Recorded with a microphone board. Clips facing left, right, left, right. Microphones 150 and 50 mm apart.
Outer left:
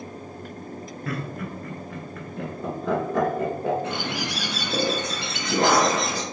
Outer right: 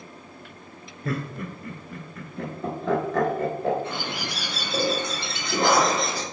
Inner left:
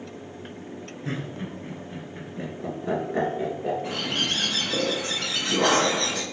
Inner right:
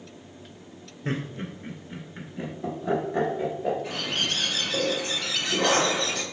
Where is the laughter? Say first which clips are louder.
Outer right 2 dB, inner right 2 dB; 30° right (ahead or behind), 1.2 m; by 3.7 s 20° left (ahead or behind), 1.6 m.